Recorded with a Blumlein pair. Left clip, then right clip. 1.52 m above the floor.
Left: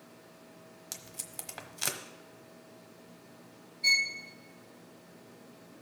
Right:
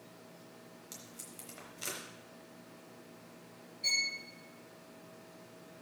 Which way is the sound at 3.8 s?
5° left.